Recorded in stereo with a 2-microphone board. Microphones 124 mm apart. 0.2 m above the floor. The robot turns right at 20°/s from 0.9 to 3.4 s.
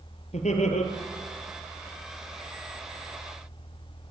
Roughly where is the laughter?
Left.